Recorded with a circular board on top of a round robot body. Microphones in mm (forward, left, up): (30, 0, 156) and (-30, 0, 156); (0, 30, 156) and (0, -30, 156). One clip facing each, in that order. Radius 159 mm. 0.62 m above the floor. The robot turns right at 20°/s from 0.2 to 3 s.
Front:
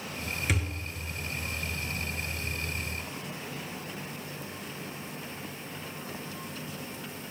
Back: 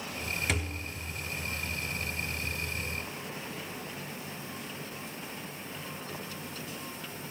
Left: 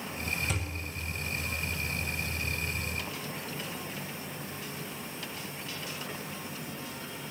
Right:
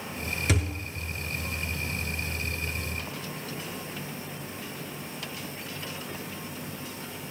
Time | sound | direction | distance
0.5 | a thud | 90° right | 1.0 m